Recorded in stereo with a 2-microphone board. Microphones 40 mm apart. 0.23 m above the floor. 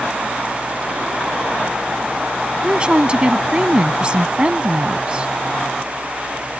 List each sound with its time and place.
2.6 s a woman speaking: 25° right (ahead or behind)